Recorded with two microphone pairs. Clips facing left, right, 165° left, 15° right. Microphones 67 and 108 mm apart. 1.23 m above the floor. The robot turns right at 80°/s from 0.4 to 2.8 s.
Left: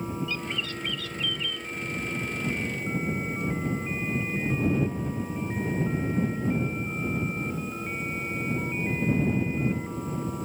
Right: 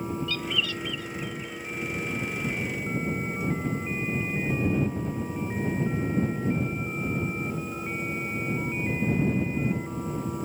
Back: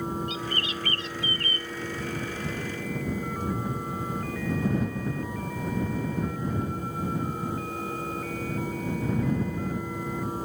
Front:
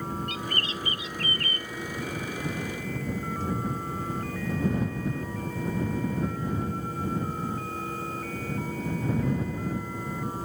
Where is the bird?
20° left; by 1.7 s 120° left.